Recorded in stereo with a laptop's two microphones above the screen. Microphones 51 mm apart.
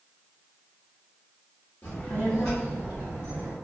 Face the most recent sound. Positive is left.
turn(degrees=-55)  # may be behind; listen again after turning